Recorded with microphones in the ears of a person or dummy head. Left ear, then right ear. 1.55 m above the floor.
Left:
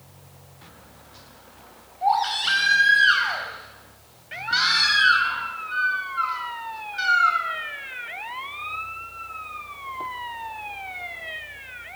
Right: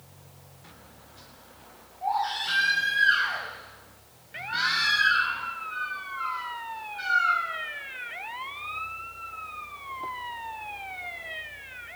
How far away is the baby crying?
About 5.5 m.